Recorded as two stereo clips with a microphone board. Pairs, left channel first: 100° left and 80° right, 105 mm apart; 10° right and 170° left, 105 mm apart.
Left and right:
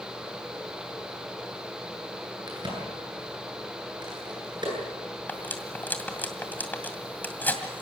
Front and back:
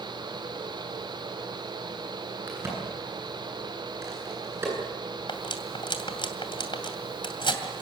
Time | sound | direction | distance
2.5 | a crack | 125° right | 9.5 m
5.3 | cutlery clinking | 25° left | 2 m